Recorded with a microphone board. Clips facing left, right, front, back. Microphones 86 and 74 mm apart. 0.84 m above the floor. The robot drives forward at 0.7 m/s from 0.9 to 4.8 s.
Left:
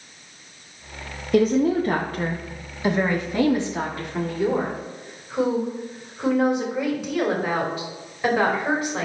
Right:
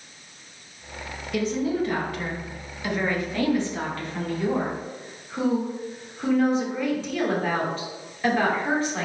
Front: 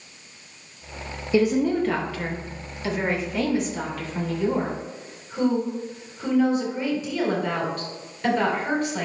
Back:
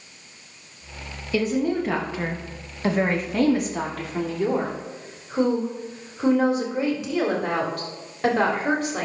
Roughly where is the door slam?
No door slam in this recording.